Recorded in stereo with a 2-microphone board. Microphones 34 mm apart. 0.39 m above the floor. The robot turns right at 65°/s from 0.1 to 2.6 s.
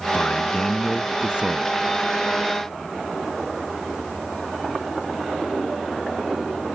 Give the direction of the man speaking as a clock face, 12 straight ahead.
8 o'clock.